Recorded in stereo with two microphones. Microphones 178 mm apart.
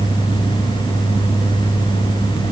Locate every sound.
Only background noise.